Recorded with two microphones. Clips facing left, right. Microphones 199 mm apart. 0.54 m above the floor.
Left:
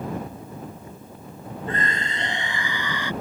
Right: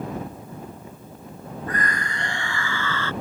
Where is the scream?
25° left (ahead or behind); by 3.1 s 15° left (ahead or behind).